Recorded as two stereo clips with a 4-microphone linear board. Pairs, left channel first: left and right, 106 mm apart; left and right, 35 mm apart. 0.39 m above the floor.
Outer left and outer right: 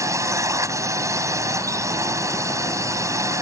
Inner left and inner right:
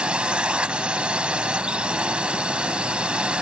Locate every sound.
0.0 s a drone: 30° right (ahead or behind)